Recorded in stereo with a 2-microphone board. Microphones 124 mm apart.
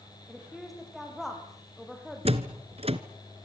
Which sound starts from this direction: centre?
A woman speaking, at 0.3 s.